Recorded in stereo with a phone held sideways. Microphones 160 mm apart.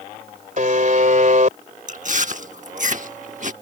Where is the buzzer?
55° right (ahead or behind).